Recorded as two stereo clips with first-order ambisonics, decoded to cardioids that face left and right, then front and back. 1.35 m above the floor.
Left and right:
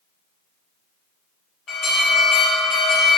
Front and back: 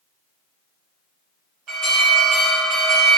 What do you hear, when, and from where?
1.7 s an alarm: 135° left, 1.1 m